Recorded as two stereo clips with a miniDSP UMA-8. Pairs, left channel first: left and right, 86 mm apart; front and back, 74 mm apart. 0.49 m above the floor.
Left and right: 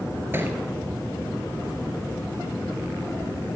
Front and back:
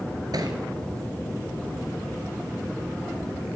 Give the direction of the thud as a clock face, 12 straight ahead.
5 o'clock.